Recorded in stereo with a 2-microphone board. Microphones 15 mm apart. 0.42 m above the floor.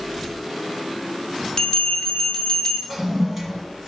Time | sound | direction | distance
1.6 | a bell | 40° left (ahead or behind) | 0.9 m
2.9 | a toilet flushing | 10° right (ahead or behind) | 1.9 m